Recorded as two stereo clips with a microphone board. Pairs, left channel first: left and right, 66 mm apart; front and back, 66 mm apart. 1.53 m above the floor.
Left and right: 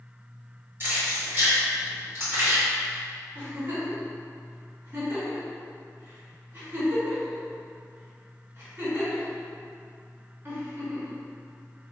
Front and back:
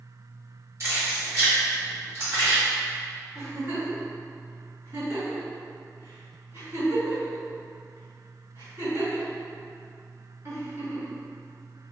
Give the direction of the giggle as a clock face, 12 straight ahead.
5 o'clock.